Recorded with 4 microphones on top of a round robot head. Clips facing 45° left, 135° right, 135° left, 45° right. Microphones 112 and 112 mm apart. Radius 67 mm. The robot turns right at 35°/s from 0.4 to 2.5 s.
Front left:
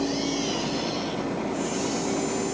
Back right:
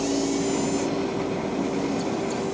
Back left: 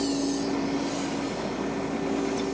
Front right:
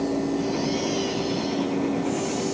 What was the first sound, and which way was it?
Only background noise.